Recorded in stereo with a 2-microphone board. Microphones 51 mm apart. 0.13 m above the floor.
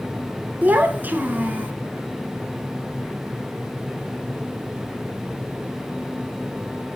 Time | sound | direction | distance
0.6 | a child speaking | 40° right (ahead or behind) | 1.0 m